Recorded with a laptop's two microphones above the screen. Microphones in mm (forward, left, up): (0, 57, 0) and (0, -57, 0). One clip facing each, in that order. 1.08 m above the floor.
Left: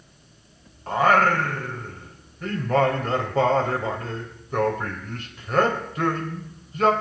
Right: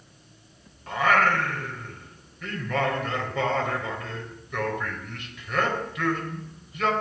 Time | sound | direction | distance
0.9 | singing | 40° left (ahead or behind) | 3 m